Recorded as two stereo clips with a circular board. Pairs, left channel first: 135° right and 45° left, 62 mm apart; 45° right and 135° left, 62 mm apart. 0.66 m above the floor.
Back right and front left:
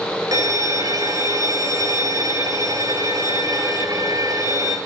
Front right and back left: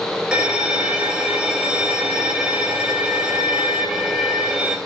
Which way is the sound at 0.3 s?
60° left.